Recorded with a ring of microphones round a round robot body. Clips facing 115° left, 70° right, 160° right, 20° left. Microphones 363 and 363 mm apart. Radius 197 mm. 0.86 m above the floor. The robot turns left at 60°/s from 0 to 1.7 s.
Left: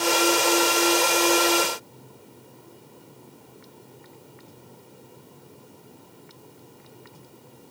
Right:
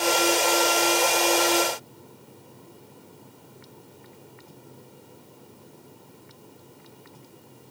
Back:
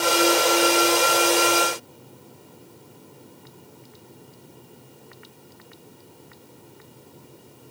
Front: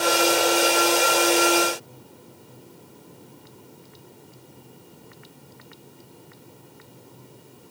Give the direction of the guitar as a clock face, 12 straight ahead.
No guitar in this recording.